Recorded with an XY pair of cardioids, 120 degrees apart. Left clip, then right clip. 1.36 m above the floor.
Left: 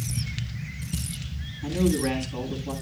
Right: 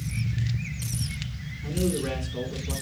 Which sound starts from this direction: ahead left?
A man speaking, at 1.6 s.